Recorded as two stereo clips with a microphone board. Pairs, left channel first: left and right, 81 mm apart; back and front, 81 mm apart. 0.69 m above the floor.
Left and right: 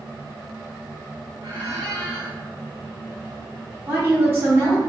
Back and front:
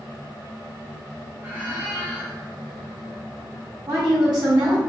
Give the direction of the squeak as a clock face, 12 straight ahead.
2 o'clock.